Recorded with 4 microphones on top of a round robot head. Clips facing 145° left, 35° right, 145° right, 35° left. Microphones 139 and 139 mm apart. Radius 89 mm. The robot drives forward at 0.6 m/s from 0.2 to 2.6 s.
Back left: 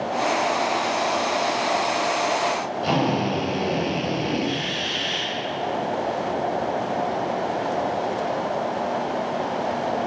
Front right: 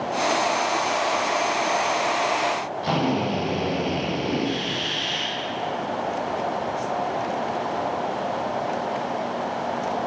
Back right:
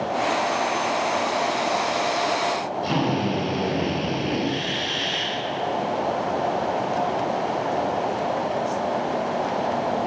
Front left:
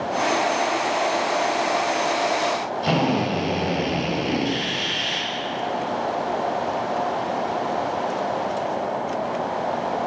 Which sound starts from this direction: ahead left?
A drill, at 2.8 s.